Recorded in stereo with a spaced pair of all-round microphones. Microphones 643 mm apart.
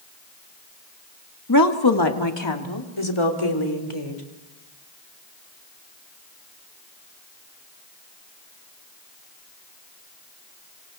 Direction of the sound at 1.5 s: 30° left (ahead or behind).